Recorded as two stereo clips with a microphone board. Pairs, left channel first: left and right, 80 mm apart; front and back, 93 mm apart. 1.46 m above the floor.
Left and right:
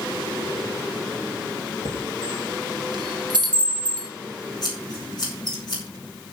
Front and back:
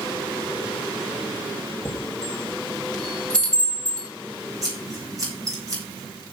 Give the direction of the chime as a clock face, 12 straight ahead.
3 o'clock.